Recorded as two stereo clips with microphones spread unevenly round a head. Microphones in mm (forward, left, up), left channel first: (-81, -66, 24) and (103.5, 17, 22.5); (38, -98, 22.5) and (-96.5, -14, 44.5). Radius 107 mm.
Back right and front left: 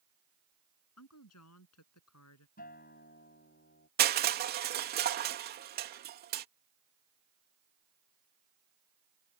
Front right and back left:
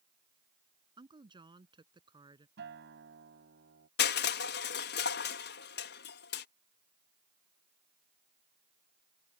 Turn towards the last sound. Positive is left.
turn(degrees=-20)